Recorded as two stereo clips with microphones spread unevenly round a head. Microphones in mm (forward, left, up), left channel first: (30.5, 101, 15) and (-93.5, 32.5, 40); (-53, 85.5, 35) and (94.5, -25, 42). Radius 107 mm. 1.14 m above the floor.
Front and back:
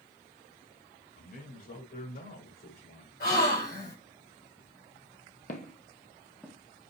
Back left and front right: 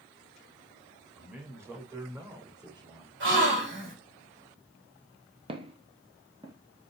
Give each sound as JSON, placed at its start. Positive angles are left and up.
{"t": 1.2, "sound": "a man speaking", "azimuth_deg": 45, "distance_m": 5.0}
{"t": 3.2, "sound": "a gasp", "azimuth_deg": -15, "distance_m": 5.0}
{"t": 5.5, "sound": "footsteps", "azimuth_deg": 5, "distance_m": 1.4}